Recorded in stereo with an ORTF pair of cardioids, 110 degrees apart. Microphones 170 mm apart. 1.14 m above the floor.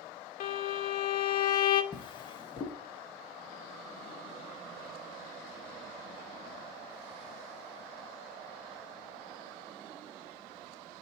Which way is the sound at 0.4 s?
60° left.